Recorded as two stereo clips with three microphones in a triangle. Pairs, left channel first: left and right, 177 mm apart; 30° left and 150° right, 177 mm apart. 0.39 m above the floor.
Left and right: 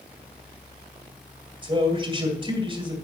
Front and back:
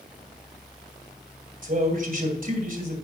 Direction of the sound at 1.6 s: 145° right.